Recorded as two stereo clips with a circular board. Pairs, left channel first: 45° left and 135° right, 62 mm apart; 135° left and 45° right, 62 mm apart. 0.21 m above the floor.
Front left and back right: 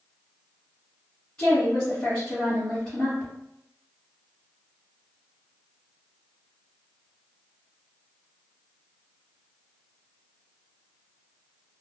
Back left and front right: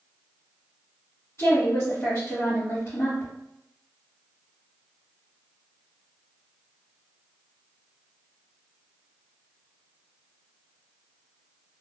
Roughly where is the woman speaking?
Behind left.